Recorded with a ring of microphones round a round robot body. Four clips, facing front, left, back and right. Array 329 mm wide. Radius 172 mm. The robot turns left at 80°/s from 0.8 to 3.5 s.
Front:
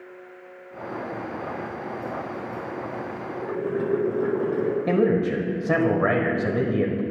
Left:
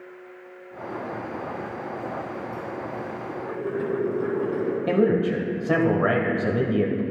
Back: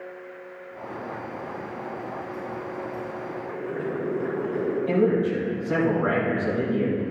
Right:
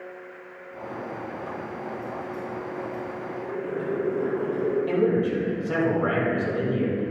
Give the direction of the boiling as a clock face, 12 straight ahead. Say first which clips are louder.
Left 2 dB, front 7 dB; 11 o'clock.